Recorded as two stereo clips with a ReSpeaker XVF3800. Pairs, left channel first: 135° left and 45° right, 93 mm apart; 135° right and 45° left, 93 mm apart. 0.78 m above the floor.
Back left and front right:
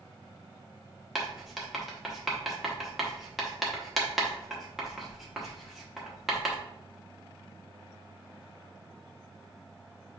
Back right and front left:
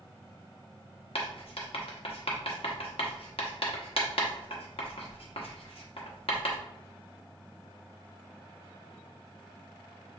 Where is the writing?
135° right, 1.1 m.